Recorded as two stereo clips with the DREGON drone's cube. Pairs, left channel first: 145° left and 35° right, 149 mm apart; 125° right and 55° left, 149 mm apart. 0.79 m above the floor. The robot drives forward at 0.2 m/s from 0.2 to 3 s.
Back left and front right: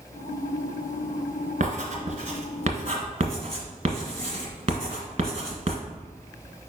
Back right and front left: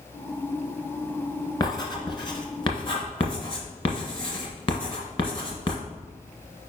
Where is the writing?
65° right, 1.5 m; by 5.8 s 75° right, 1.4 m.